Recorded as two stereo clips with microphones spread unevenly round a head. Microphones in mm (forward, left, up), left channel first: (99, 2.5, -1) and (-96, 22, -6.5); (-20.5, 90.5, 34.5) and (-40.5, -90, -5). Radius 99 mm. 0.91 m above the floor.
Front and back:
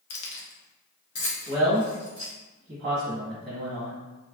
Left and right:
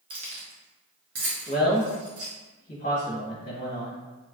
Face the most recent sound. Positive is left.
turn(degrees=120)